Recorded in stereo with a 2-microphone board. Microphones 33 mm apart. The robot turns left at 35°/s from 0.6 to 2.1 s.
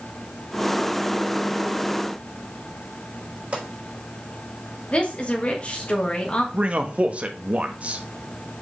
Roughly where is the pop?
Right.